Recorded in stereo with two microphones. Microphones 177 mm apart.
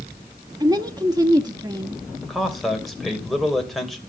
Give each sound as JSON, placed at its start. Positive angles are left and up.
{"t": 0.6, "sound": "a woman speaking", "side_deg": -25, "distance_m": 0.7}
{"t": 2.2, "sound": "a man speaking", "side_deg": 0, "distance_m": 2.5}